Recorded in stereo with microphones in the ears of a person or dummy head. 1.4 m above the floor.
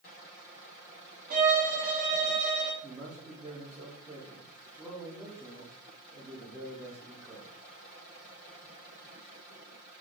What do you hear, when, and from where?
1.3 s a violin: 50° right (ahead or behind), 0.8 m
2.8 s a man speaking: 15° right (ahead or behind), 0.6 m